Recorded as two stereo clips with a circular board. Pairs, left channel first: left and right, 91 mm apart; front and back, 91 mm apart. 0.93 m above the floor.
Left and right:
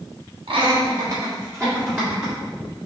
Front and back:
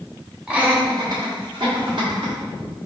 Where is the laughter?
100° right, 1.1 m; by 2.3 s 160° right, 2.5 m.